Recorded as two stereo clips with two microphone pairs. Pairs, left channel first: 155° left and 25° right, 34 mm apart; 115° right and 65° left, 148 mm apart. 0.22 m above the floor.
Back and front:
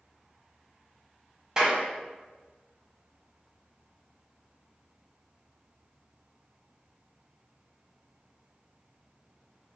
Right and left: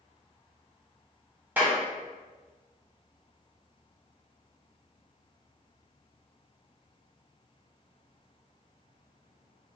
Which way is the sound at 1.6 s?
10° left.